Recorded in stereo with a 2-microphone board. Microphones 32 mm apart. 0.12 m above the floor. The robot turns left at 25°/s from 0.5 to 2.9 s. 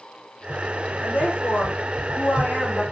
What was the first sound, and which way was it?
A woman speaking, 100° left.